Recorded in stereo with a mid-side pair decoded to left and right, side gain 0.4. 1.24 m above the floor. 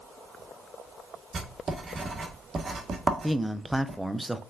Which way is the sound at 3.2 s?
5° right.